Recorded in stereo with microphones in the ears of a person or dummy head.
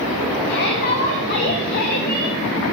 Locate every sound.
0.5 s a shout: 50° left (ahead or behind), 1.9 m